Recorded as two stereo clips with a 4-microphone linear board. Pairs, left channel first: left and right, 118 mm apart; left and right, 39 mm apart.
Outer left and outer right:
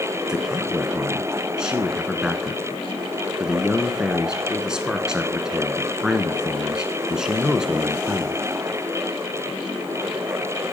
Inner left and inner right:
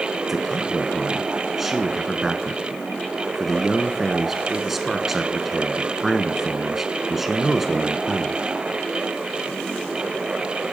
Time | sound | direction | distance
0.3 | a man speaking | 5° right (ahead or behind) | 1.4 m